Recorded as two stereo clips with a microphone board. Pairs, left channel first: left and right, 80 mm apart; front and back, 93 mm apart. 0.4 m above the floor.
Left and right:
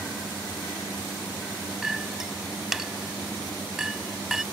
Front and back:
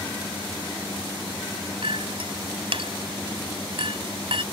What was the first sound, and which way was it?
A clink, 175° right.